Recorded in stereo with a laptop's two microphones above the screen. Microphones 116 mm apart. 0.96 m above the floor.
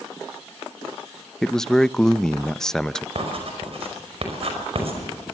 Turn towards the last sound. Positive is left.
turn(degrees=-60)  # may be behind; listen again after turning